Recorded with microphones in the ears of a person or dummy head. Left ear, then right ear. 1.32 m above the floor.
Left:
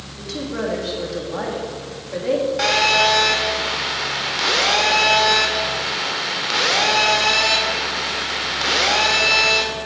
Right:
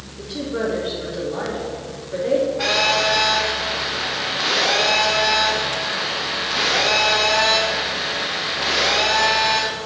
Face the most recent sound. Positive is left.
turn(degrees=60)  # may be behind; listen again after turning